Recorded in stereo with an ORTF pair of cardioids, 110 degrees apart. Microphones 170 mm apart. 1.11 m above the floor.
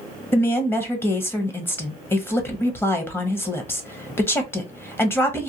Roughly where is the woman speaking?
Ahead.